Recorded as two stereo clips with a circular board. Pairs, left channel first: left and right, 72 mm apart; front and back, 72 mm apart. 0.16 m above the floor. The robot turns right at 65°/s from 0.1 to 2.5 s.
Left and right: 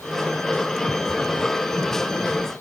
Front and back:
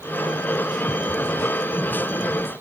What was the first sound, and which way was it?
Only background noise.